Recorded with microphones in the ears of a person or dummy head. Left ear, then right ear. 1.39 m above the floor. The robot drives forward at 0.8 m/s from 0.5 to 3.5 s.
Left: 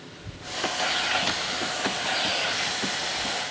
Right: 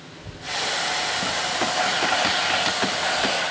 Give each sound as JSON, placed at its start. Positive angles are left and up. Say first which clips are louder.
{"t": 0.1, "sound": "a child speaking", "louder": "right 6 dB", "side_deg": 35}